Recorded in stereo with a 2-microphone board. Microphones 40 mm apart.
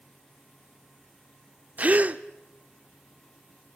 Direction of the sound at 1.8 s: 40° right (ahead or behind).